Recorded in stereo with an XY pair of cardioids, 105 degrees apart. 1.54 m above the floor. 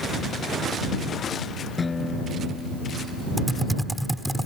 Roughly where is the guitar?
Ahead left.